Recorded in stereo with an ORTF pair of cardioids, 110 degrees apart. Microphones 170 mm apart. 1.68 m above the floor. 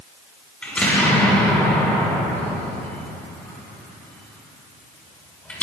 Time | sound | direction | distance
0.6 | an explosion | 5° left | 6 m